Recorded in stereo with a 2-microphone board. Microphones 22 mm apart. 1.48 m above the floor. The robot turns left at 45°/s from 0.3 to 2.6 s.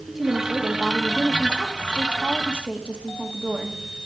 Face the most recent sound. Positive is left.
turn(degrees=-115)